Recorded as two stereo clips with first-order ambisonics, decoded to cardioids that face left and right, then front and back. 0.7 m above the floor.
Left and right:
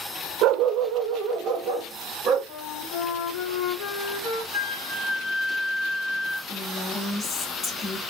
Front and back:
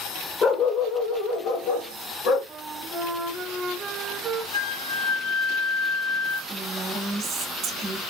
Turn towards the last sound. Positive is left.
turn(degrees=145)